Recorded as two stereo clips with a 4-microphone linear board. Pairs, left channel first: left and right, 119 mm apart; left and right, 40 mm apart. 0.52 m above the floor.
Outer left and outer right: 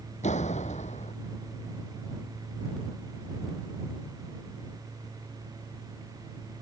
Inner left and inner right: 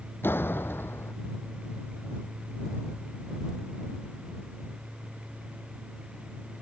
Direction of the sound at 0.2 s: 75° left (ahead or behind).